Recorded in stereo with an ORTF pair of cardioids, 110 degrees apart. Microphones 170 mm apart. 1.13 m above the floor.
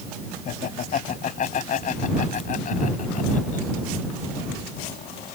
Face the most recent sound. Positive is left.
turn(degrees=50)